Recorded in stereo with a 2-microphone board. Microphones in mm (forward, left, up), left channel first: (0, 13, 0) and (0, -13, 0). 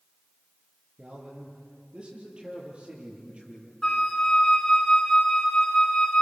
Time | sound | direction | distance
1.0 | a man speaking | 40° right (ahead or behind) | 8 m
3.8 | a flute | 25° left (ahead or behind) | 4 m